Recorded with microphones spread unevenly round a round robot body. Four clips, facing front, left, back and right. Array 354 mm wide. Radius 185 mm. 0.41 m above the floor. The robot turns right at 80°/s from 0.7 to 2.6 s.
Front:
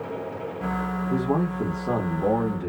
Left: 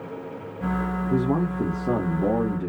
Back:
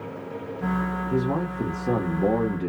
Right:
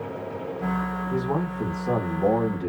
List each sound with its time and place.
1.1 s a man speaking: 75° left, 1.1 m; by 2.7 s 165° right, 1.1 m